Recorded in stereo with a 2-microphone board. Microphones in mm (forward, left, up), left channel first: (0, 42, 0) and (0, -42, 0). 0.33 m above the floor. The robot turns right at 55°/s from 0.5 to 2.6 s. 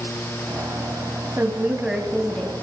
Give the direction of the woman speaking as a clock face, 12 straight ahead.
1 o'clock.